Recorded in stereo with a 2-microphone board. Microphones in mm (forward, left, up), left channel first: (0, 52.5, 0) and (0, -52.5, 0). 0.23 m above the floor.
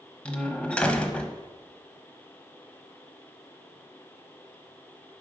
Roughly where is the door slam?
Centre.